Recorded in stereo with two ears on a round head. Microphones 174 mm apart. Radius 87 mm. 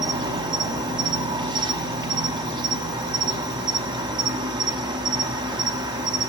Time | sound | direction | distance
0.0 | an insect | 25° right (ahead or behind) | 0.8 m